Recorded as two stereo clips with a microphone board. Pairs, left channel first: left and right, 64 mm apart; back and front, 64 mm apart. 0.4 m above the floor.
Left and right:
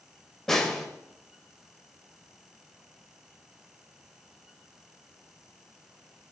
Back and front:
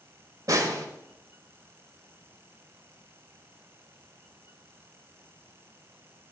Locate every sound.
0.5 s a snare drum: 10° left, 0.9 m